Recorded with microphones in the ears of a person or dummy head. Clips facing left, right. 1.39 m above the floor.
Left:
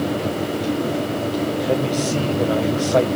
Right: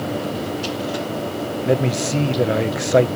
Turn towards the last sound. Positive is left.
turn(degrees=-25)  # may be behind; listen again after turning